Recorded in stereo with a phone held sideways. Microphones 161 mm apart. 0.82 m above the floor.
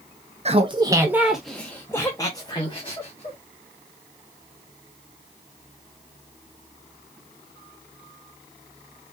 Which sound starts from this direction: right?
Laughter, at 0.5 s.